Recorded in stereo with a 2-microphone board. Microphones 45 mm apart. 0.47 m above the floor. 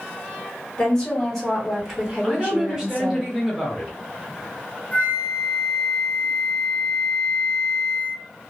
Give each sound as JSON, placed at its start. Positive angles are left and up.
{"t": 0.8, "sound": "a woman speaking", "side_deg": 15, "distance_m": 1.4}
{"t": 2.2, "sound": "a woman speaking", "side_deg": -15, "distance_m": 0.9}
{"t": 4.9, "sound": "a flute", "side_deg": 40, "distance_m": 0.8}